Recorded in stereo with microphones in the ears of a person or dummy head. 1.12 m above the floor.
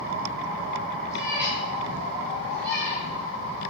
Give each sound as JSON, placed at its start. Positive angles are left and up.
{"t": 1.1, "sound": "a cat meowing", "side_deg": -10, "distance_m": 3.0}